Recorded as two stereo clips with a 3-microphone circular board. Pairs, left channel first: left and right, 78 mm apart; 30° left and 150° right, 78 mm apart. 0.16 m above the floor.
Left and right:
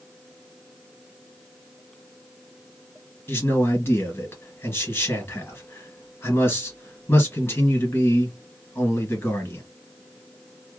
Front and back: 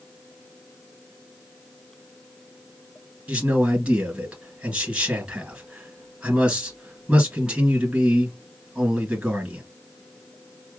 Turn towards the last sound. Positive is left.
turn(degrees=135)